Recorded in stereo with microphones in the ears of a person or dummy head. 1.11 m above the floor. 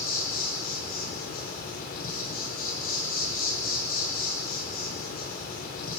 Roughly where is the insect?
Left.